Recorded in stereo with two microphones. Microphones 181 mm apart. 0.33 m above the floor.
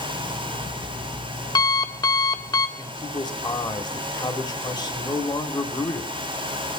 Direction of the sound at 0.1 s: 25° left (ahead or behind).